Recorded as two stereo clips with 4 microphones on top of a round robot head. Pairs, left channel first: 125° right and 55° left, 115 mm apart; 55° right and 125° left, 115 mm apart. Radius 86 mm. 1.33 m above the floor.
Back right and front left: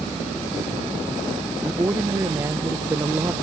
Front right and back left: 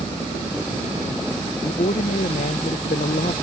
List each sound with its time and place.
1.6 s a man speaking: 20° right